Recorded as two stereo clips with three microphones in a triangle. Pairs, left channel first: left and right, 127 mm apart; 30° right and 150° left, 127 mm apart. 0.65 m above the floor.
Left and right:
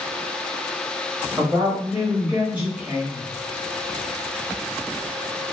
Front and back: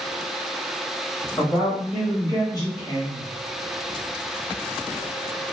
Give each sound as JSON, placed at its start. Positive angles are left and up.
{"t": 1.4, "sound": "a woman speaking", "azimuth_deg": -30, "distance_m": 1.2}